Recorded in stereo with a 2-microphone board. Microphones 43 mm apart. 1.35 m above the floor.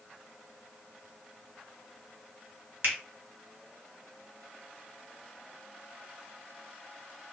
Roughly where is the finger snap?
Right.